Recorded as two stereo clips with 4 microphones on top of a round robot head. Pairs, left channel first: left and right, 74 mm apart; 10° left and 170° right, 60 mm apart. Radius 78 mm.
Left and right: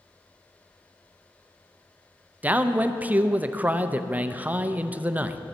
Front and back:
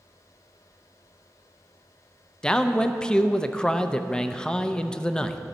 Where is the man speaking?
50° right, 0.6 m.